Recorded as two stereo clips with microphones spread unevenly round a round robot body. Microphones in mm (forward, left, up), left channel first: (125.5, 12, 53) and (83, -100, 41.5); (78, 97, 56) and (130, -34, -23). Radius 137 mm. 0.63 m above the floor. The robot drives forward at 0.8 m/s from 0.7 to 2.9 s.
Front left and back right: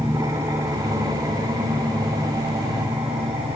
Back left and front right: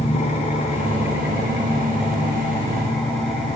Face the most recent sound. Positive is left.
turn(degrees=180)